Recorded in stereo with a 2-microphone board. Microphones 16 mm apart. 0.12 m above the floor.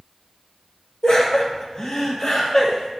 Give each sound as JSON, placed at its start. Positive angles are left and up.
{"t": 1.0, "sound": "laughter", "side_deg": 30, "distance_m": 2.5}